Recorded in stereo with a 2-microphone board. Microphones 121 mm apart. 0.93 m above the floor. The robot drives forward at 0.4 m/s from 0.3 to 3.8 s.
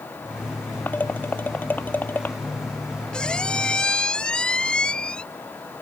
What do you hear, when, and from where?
0.9 s dishes clattering: 15° left (ahead or behind)
3.1 s a squeak: 5° left (ahead or behind)